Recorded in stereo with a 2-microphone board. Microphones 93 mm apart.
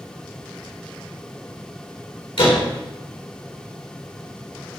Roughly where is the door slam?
Left.